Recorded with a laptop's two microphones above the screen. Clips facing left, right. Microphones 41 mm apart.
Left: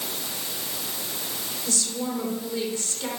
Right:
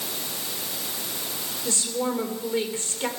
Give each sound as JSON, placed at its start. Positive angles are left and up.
{"t": 1.6, "sound": "a woman speaking", "side_deg": -35, "distance_m": 3.0}